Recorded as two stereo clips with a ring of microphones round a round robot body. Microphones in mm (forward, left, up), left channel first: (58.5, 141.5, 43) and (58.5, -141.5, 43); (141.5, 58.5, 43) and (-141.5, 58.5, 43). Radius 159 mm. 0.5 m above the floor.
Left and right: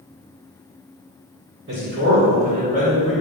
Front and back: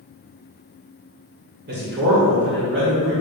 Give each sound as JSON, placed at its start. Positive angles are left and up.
{"t": 1.7, "sound": "a man speaking", "azimuth_deg": -135, "distance_m": 2.5}